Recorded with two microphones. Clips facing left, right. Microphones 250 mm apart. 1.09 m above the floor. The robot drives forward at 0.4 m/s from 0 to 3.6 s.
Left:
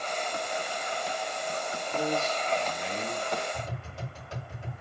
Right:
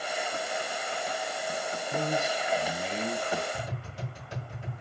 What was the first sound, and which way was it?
A man speaking, 70° right (ahead or behind).